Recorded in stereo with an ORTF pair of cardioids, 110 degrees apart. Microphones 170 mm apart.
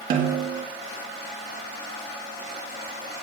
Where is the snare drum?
60° right, 3 m.